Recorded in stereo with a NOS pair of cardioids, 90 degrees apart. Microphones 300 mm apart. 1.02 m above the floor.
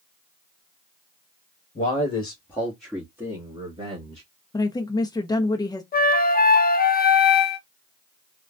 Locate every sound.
1.8 s a man speaking: 30° left, 1.4 m; by 4.2 s 20° right, 2.5 m
4.5 s a woman speaking: 15° left, 0.7 m
5.9 s a flute: 30° left, 0.7 m